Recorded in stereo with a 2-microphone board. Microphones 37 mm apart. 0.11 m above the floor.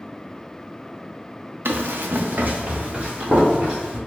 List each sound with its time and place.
1.6 s running footsteps: 80° right, 0.6 m; by 4.0 s 30° right (ahead or behind), 2.5 m